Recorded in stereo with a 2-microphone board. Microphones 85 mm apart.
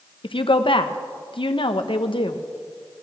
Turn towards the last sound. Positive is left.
turn(degrees=85)